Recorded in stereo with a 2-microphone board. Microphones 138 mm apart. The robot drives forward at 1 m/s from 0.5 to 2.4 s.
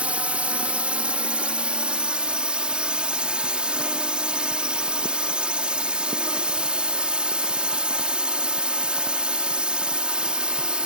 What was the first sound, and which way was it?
A drone, 10° right (ahead or behind).